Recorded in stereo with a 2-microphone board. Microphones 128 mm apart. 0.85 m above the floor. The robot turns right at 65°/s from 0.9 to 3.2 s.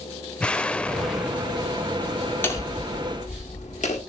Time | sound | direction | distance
0.4 | an explosion | 165° left | 0.7 m
2.4 | hammering | 15° left | 1.6 m